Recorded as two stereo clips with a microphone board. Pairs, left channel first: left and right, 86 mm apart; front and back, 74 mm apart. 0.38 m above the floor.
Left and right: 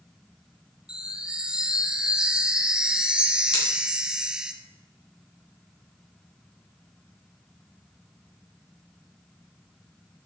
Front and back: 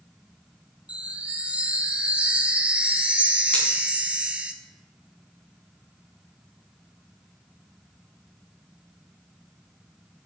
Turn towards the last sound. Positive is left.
turn(degrees=70)